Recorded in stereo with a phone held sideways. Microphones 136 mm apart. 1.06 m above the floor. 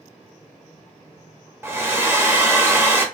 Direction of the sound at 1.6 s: 15° right (ahead or behind).